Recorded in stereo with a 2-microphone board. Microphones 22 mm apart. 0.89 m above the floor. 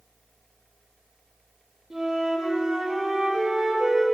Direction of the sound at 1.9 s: 40° right (ahead or behind).